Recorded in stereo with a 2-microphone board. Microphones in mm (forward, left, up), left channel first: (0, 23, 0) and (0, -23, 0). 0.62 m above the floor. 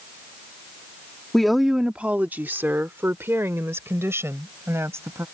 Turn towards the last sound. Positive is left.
turn(degrees=-75)  # may be behind; listen again after turning